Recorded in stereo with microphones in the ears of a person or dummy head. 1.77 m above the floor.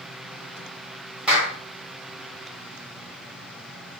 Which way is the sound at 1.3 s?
5° right (ahead or behind).